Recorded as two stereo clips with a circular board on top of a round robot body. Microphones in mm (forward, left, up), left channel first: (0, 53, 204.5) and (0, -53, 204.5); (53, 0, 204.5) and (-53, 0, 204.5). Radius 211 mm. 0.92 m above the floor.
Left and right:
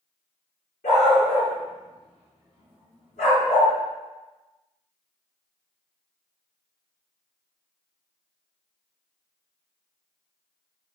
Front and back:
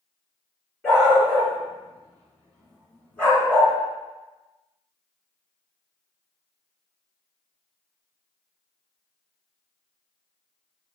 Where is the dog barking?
75° left, 4.5 m; by 3.7 s 80° left, 2.5 m.